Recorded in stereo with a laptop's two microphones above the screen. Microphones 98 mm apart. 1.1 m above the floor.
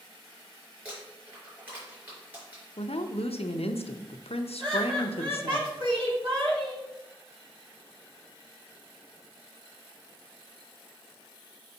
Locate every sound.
0.8 s crumpling: 15° right (ahead or behind), 4 m
2.8 s a woman speaking: 85° left, 0.6 m
4.6 s laughter: 55° right (ahead or behind), 2 m